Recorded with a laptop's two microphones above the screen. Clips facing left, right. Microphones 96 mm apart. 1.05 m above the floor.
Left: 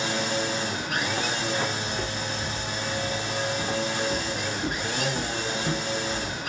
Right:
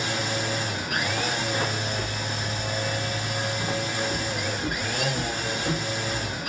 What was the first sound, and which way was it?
A machine running, 30° left (ahead or behind).